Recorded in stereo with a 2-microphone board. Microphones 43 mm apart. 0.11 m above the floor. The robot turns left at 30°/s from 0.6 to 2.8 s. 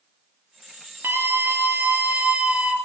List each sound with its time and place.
1.0 s a scream: 100° right, 1.7 m; by 2.8 s 150° right, 1.7 m